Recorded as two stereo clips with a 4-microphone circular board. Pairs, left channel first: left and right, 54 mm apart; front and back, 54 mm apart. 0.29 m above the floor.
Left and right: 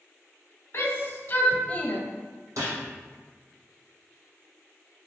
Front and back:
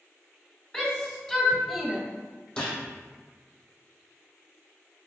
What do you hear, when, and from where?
0.7 s a shout: 60° left, 2.5 m; by 2.0 s 110° left, 1.5 m
2.6 s a gunshot: 75° right, 1.8 m